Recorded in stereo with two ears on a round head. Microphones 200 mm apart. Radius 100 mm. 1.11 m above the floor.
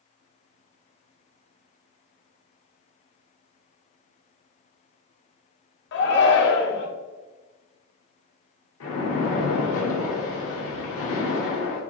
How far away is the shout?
About 1.1 m.